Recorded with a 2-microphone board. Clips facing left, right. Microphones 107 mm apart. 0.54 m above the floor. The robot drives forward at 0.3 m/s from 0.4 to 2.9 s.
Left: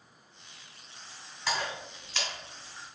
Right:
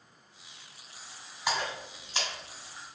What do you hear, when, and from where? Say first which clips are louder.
1.5 s a splash: right 1 dB; 15° right (ahead or behind), 1.6 m